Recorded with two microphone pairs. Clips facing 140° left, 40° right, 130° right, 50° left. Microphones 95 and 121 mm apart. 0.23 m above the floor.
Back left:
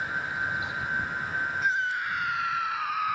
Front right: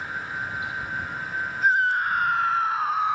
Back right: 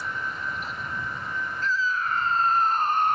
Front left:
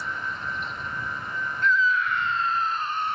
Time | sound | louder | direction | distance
1.6 | a scream | front right 10 dB, front left 4 dB | 75° right | ?